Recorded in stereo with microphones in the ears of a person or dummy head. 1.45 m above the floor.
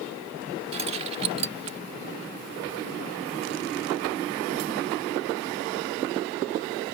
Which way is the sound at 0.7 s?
30° right (ahead or behind).